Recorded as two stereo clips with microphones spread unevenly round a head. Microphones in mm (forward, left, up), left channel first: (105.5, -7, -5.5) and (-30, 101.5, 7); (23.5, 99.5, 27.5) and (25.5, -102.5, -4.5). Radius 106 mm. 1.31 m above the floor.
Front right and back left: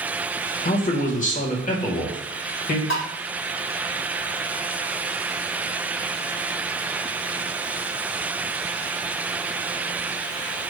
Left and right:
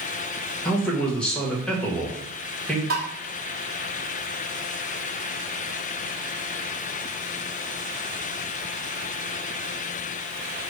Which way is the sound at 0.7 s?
Straight ahead.